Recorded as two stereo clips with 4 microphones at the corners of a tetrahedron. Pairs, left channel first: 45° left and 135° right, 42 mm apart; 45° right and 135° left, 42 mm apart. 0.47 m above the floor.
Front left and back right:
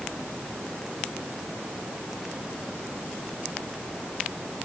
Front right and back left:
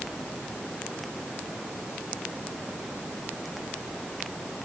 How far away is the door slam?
No door slam in this recording.